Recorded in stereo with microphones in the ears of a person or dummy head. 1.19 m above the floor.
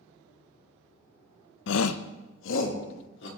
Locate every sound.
1.7 s a shout: 55° left (ahead or behind), 0.6 m; by 3.3 s 75° left (ahead or behind), 3 m